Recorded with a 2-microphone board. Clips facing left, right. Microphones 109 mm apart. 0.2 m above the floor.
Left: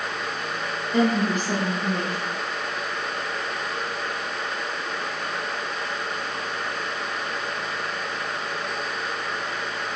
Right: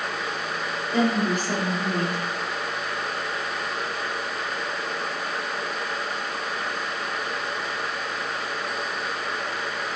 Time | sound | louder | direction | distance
0.9 | a woman speaking | left 1 dB | 10° right (ahead or behind) | 1.2 m